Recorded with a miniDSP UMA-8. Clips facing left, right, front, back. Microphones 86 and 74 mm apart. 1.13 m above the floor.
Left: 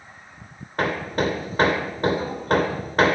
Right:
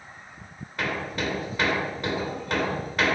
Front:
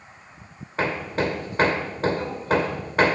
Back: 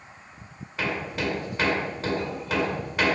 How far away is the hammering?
About 2 m.